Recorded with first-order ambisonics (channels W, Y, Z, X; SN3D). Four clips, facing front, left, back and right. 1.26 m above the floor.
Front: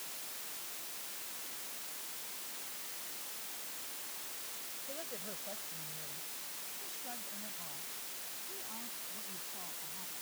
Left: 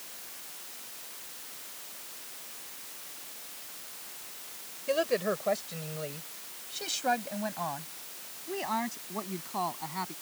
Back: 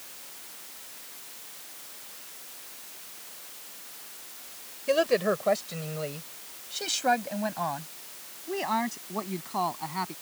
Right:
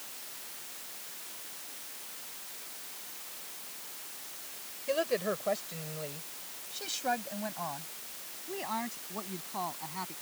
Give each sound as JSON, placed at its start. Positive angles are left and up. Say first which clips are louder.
{"t": 4.9, "sound": "a woman speaking", "louder": "left 2 dB, back 24 dB", "azimuth_deg": 170}